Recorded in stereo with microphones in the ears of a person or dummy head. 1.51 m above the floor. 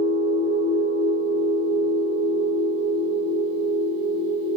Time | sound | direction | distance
0.0 | a machine running | 45° left (ahead or behind) | 1.4 m